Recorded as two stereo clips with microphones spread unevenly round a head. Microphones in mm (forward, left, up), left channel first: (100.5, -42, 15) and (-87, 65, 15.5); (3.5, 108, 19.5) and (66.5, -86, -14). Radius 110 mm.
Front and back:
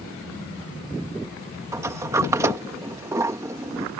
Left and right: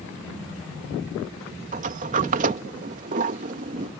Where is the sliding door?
130° right.